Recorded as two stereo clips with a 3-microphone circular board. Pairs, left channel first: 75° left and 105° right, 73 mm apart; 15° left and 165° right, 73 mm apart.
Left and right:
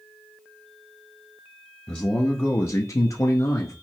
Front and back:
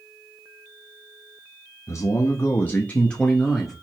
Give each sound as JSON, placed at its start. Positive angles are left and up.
{"t": 1.9, "sound": "a man speaking", "azimuth_deg": 10, "distance_m": 0.7}